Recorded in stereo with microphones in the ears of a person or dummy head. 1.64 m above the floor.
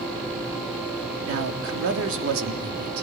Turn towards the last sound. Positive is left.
turn(degrees=-65)  # may be behind; listen again after turning